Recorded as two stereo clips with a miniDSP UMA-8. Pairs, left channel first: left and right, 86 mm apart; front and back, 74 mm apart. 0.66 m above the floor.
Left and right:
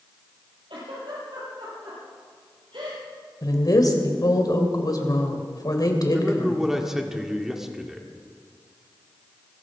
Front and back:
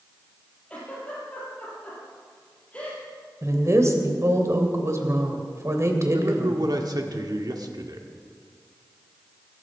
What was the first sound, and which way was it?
A giggle, 75° right.